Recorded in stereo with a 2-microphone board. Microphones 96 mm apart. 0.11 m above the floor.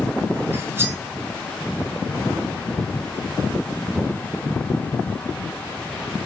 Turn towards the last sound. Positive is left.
turn(degrees=-25)  # may be behind; listen again after turning